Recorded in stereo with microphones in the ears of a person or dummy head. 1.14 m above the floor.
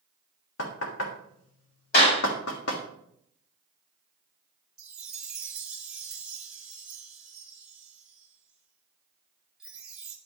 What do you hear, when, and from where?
0.6 s knocking: 75° left (ahead or behind), 1.5 m
1.9 s a clap: 55° left (ahead or behind), 4 m
4.8 s a chime: 10° right (ahead or behind), 2 m